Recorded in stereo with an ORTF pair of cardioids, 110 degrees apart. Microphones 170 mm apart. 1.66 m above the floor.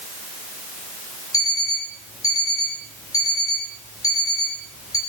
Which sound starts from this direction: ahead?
An alarm clock, at 1.3 s.